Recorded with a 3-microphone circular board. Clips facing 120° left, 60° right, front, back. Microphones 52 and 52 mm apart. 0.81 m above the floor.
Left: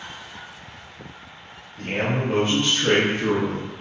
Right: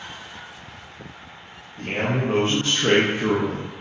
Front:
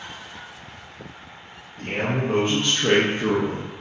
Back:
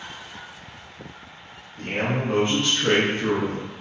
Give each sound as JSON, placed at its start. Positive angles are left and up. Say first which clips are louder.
{"t": 1.8, "sound": "a man speaking", "louder": "even, even", "azimuth_deg": -90, "distance_m": 0.9}